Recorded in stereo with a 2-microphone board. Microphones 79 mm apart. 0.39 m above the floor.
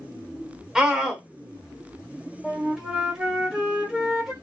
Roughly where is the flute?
Centre.